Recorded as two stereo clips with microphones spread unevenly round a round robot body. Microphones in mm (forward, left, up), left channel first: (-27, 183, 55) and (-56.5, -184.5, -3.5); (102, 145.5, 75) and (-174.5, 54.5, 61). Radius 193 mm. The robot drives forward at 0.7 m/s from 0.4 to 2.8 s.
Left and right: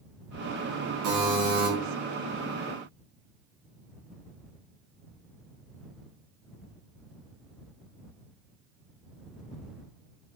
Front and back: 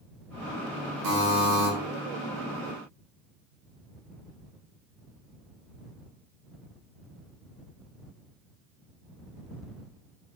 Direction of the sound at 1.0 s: 140° right.